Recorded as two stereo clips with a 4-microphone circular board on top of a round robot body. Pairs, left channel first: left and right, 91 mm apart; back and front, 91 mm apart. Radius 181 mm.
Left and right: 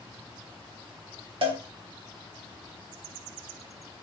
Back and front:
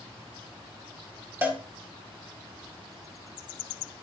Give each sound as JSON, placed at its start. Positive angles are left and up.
{"t": 1.4, "sound": "a cowbell", "azimuth_deg": -70, "distance_m": 2.0}